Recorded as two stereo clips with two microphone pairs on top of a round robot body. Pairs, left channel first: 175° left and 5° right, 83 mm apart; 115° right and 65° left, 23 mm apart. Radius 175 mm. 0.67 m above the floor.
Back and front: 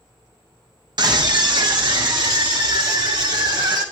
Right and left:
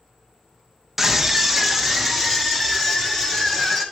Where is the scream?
5° right, 1.7 m; by 3.8 s 30° right, 5 m.